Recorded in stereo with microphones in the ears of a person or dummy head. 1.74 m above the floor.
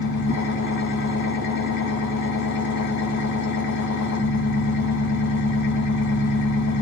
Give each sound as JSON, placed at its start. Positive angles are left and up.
{"t": 0.0, "sound": "an engine running", "side_deg": 55, "distance_m": 0.8}